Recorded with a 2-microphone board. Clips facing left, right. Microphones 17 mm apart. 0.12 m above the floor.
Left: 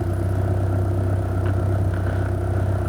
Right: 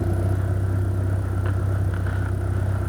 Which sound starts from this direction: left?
A vehicle, at 0.0 s.